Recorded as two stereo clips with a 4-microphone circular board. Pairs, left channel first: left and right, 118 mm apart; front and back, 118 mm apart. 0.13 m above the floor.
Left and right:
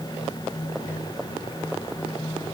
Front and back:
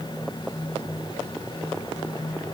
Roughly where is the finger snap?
I don't hear a finger snap.